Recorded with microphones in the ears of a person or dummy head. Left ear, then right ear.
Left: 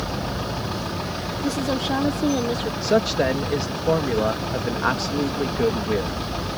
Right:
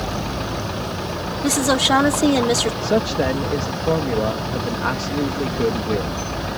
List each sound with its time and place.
1.4 s a woman speaking: 45° right (ahead or behind); by 2.7 s 60° right (ahead or behind)
2.8 s a man speaking: 20° left (ahead or behind)